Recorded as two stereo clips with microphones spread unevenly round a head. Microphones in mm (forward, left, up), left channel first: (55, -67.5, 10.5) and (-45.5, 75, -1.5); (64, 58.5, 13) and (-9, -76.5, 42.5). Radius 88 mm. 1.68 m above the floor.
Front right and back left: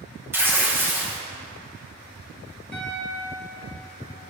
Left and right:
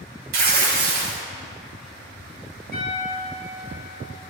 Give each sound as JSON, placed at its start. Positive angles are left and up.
{"t": 0.3, "sound": "tearing paper", "azimuth_deg": -155, "distance_m": 1.4}
{"t": 2.7, "sound": "a piano", "azimuth_deg": -135, "distance_m": 2.0}